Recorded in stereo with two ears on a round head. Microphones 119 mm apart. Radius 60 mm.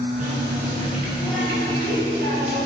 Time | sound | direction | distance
0.2 | a running tap | 55° right (ahead or behind) | 5 m